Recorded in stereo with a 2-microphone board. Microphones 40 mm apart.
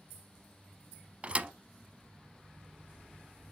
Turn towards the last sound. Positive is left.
turn(degrees=-35)  # may be behind; listen again after turning